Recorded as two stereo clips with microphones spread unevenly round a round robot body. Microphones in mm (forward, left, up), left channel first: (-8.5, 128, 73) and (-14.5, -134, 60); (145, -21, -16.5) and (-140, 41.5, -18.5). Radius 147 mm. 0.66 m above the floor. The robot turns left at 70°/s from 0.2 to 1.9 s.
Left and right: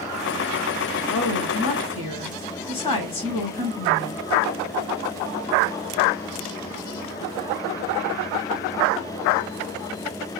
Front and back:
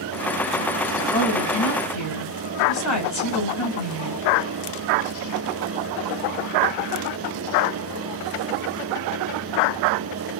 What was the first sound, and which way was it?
A woman speaking, 75° left.